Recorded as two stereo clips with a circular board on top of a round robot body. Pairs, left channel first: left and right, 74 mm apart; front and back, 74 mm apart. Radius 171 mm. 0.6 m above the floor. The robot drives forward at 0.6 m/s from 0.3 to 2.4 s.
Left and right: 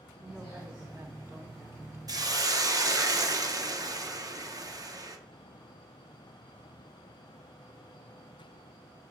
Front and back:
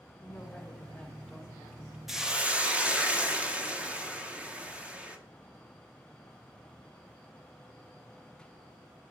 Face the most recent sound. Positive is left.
turn(degrees=-110)